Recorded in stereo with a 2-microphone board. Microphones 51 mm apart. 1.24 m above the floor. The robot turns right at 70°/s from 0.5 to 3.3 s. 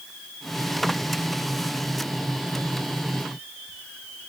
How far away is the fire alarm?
I don't hear a fire alarm.